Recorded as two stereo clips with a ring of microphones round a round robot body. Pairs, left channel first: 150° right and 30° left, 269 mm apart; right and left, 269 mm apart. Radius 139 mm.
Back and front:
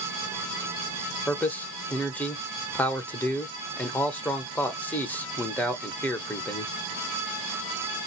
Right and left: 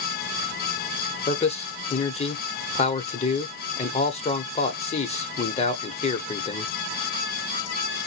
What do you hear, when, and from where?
1.3 s a man speaking: 75° right, 0.9 m